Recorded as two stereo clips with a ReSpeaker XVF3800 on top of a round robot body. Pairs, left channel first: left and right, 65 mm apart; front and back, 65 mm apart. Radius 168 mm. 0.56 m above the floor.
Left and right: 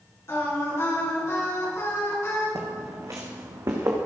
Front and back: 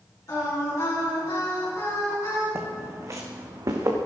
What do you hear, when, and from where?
0.3 s singing: 45° left, 8 m
2.5 s footsteps: 125° right, 1.9 m; by 4.0 s 145° right, 3 m